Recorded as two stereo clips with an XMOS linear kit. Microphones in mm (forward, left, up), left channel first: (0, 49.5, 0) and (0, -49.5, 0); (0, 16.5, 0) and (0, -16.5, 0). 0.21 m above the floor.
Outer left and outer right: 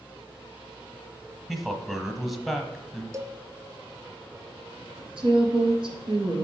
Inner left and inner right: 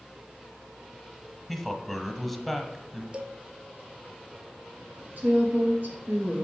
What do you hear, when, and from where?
1.5 s a man speaking: centre (ahead or behind), 1.0 m
3.1 s a cowbell: 35° right (ahead or behind), 0.6 m
5.2 s a woman speaking: 60° right (ahead or behind), 3 m